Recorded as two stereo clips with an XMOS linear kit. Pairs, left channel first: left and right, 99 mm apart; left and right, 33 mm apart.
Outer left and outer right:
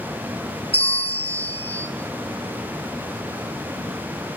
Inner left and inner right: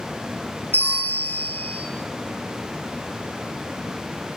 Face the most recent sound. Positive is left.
turn(degrees=75)  # may be behind; listen again after turning